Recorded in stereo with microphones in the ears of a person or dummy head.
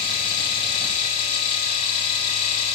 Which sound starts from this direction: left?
A machine running, at 0.0 s.